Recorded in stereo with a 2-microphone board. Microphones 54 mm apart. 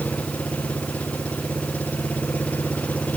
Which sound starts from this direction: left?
An engine running, at 0.0 s.